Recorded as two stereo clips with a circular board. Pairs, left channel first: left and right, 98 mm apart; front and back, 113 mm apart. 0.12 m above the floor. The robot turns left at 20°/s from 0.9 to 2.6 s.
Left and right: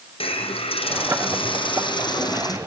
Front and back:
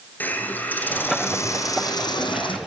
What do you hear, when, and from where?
0.2 s a hiss: 75° left, 2 m; by 2.6 s 40° left, 2 m